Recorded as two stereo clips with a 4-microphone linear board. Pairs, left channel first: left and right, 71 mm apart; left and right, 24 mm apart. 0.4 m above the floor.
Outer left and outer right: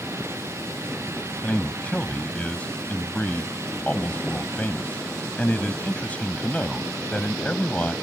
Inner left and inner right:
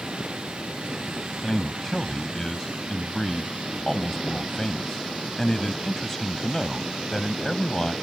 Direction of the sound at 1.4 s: 20° left (ahead or behind).